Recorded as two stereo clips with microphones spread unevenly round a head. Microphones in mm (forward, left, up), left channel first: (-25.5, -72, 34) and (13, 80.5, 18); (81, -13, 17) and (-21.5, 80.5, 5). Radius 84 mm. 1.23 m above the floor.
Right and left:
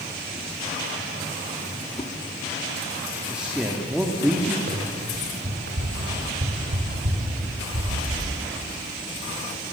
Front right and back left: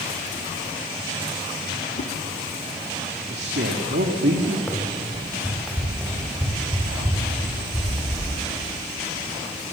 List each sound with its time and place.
2.0 s a whoosh: 40° right, 1.8 m
3.3 s a man speaking: 160° left, 2 m
4.7 s running footsteps: 35° left, 5.5 m; by 8.2 s 60° left, 9 m